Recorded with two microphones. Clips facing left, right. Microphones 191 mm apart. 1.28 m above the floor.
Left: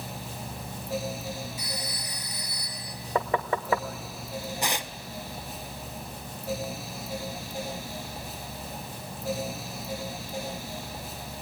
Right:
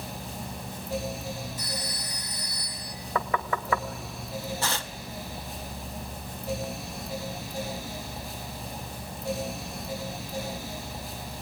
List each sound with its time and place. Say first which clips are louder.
1.6 s a phone ringing: right 1 dB; 10° left (ahead or behind), 6.5 m
3.1 s knocking: left 2 dB; 25° left (ahead or behind), 0.8 m
4.6 s tearing paper: left 1 dB; 15° left (ahead or behind), 0.6 m